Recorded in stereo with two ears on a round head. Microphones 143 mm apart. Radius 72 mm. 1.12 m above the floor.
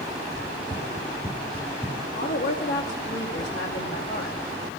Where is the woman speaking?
65° left (ahead or behind), 2.5 m.